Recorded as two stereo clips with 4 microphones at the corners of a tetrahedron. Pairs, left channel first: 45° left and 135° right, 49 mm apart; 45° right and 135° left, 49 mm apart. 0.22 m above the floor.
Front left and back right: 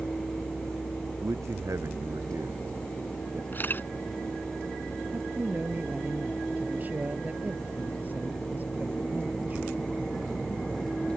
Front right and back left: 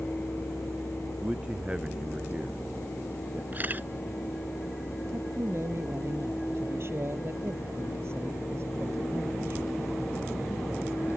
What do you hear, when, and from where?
1.2 s a man speaking: 155° right
3.5 s a camera shutter: 85° left
5.1 s a man speaking: 170° left